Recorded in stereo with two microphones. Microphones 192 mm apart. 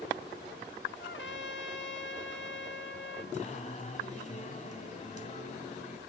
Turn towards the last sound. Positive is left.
turn(degrees=40)  # may be behind; listen again after turning